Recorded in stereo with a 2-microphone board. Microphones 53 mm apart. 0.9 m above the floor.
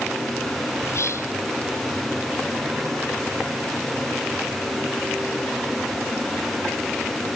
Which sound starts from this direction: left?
Whispering, at 0.8 s.